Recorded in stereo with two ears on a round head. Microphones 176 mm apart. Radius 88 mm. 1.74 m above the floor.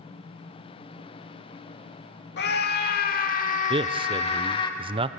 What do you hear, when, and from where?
2.4 s a scream: 60° left (ahead or behind), 2.5 m; by 4.7 s 25° left (ahead or behind), 2.5 m
3.7 s a man speaking: 25° right (ahead or behind), 0.7 m